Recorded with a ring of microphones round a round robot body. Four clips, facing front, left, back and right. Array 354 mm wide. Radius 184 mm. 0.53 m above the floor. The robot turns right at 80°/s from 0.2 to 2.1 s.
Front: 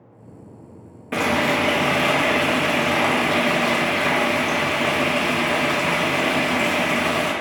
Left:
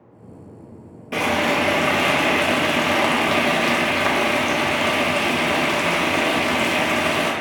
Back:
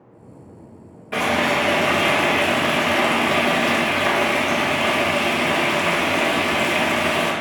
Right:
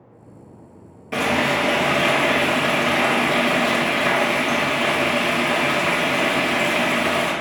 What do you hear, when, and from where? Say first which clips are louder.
1.1 s frying: even, even; 15° left, 1.1 m; by 7.3 s 95° left, 1.1 m